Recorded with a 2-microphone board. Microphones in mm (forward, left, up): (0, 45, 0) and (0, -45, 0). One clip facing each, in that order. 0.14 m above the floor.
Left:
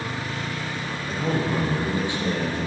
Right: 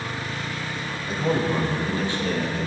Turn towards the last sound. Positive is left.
turn(degrees=30)  # may be behind; listen again after turning